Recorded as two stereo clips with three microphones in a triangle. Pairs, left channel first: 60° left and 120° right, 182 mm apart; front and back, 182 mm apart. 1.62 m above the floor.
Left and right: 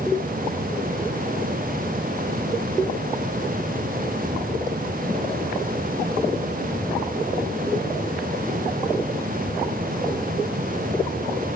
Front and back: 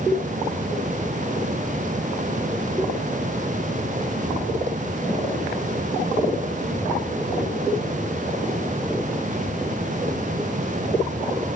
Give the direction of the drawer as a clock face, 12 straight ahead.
I don't hear a drawer.